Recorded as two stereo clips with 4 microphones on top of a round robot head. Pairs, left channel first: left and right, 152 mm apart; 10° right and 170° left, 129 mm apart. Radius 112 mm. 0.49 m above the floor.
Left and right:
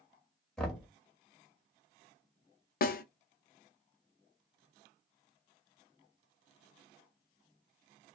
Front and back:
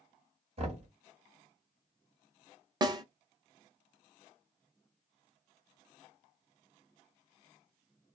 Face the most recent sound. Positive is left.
turn(degrees=110)